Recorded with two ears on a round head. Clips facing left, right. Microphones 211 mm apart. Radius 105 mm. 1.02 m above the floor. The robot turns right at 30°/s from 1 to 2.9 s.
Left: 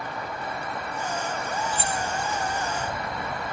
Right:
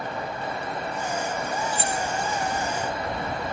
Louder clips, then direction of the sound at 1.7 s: Right 1 dB; 35° right (ahead or behind).